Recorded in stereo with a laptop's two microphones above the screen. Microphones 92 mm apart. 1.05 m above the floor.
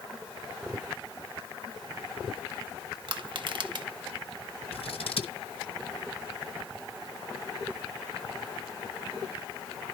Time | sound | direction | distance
3.1 | crushing | 55° right (ahead or behind) | 0.7 m
4.7 | scissors | 75° left (ahead or behind) | 1.0 m